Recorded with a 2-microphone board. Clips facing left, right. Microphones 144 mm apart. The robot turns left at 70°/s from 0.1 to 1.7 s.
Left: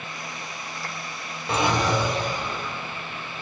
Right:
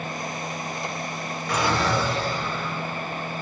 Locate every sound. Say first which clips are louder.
1.5 s a drawer: left 1 dB; 30° left (ahead or behind), 0.6 m; by 3.4 s 15° left (ahead or behind), 0.6 m